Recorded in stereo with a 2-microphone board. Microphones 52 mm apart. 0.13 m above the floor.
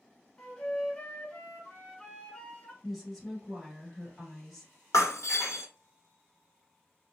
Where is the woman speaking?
Centre (ahead or behind), 1.8 m.